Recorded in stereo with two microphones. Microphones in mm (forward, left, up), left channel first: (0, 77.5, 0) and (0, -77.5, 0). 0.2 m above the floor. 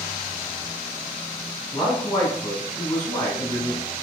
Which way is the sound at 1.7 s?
5° left (ahead or behind).